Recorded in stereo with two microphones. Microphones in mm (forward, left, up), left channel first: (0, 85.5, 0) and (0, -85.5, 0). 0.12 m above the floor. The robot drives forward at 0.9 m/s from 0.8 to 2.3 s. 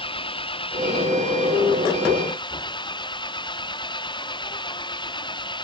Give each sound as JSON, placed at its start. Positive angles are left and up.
{"t": 0.0, "sound": "an engine running", "side_deg": 30}